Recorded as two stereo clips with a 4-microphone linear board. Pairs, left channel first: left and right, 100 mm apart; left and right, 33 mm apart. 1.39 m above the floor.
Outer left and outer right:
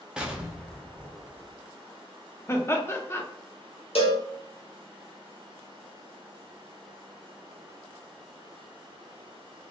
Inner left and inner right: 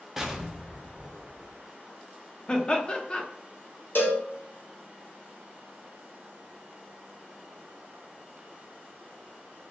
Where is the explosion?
10° right (ahead or behind), 0.6 m.